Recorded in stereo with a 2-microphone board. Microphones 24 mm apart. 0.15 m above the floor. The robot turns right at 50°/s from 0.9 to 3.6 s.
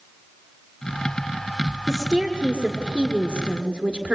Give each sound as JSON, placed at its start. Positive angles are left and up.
{"t": 1.9, "sound": "a woman speaking", "azimuth_deg": -160, "distance_m": 1.9}